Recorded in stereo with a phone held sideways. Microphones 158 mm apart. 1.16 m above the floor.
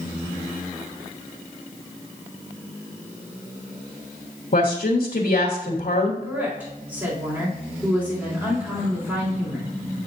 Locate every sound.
4.5 s a woman speaking: 70° left (ahead or behind), 1.4 m
6.2 s a woman speaking: 15° right (ahead or behind), 3 m